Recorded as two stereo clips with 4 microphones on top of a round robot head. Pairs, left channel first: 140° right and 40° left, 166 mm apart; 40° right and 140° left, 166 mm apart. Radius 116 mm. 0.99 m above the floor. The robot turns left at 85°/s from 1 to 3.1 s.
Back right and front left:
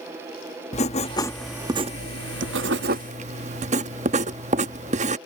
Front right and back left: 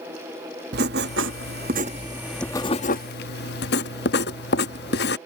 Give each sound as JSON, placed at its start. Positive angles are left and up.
{"t": 0.7, "sound": "writing", "azimuth_deg": 165}